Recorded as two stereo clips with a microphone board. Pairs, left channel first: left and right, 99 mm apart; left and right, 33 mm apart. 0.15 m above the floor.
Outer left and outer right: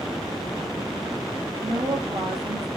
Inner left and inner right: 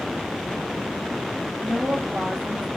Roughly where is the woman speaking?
Right.